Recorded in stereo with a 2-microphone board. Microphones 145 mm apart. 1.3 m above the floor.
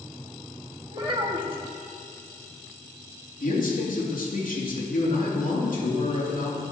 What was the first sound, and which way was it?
A child speaking, 35° right (ahead or behind).